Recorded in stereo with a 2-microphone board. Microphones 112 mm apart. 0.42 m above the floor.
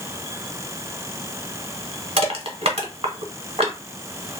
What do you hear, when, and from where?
2.2 s crushing: 60° right (ahead or behind), 0.8 m